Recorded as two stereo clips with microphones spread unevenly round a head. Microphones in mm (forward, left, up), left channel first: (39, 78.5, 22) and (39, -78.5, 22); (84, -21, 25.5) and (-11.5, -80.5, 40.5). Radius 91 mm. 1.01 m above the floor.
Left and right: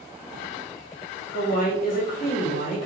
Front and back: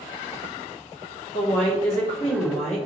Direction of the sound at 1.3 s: 60° left.